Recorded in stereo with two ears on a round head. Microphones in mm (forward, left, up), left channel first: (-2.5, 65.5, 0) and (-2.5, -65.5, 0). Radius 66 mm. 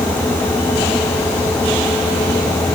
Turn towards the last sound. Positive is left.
No sound to turn to.